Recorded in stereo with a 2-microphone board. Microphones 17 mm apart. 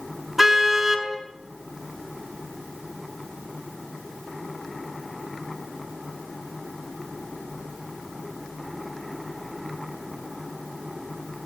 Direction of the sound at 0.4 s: 20° right (ahead or behind).